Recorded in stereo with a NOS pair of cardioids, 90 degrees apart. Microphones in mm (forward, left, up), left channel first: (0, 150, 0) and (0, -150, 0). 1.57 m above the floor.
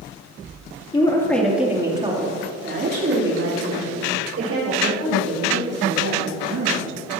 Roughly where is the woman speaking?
Ahead.